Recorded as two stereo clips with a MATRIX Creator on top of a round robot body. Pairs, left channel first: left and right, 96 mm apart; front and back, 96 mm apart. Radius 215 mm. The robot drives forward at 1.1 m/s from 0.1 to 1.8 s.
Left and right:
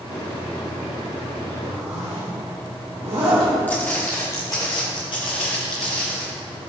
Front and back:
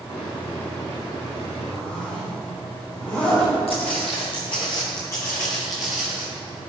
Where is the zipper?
75° right, 3 m; by 3.5 s 80° right, 3 m.